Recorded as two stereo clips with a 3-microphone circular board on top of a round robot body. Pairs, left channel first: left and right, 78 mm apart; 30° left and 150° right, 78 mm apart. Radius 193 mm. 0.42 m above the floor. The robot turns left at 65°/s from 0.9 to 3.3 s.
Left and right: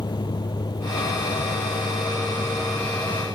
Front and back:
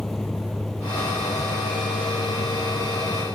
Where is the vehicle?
115° left; by 3.4 s 40° right.